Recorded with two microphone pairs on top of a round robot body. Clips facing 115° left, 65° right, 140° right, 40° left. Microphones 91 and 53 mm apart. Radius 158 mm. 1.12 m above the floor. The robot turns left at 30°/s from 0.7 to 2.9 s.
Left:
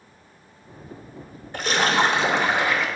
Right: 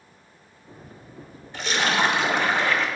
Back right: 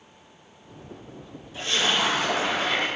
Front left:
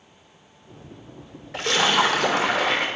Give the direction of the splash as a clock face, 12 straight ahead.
10 o'clock.